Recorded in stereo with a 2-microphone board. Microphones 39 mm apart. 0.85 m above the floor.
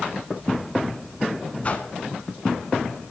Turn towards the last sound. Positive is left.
turn(degrees=35)  # may be behind; listen again after turning